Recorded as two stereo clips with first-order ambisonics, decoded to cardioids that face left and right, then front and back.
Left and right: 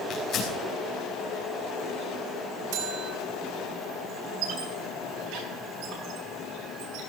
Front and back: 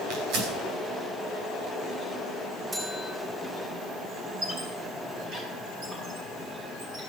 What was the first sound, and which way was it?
Tearing paper, 145° left.